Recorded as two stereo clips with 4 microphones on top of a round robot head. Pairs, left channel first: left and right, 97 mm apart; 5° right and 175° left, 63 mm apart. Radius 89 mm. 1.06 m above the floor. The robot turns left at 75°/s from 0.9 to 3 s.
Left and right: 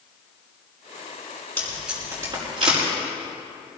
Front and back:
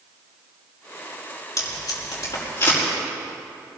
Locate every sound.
1.6 s tape being pulled: 15° left, 5.5 m; by 2.8 s 75° right, 5.5 m